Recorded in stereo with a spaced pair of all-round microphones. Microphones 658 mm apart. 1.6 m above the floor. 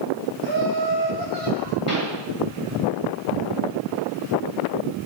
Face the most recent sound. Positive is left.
turn(degrees=55)  # may be behind; listen again after turning